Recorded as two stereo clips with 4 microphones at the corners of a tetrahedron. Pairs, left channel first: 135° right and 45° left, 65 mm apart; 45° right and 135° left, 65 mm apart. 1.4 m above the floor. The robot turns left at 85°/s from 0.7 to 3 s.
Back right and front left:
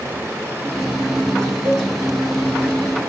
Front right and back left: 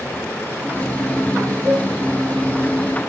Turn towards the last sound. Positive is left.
turn(degrees=-10)